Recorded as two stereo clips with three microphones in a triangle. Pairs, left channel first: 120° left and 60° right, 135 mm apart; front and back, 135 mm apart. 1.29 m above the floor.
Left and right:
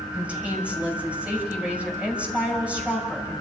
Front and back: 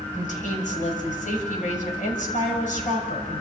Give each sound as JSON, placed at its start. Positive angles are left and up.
{"t": 0.1, "sound": "a woman speaking", "azimuth_deg": 20, "distance_m": 6.5}